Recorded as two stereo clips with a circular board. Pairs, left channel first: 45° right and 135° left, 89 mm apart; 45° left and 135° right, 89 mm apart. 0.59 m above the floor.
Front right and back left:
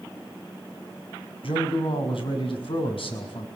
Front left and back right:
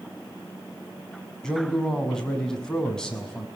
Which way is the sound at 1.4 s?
35° right.